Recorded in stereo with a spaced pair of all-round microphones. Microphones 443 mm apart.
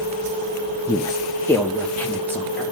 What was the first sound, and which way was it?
A woman speaking, 5° left (ahead or behind).